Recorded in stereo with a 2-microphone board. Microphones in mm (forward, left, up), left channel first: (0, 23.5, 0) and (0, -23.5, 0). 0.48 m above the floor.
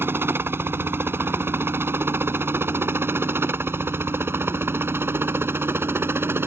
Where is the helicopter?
55° right (ahead or behind).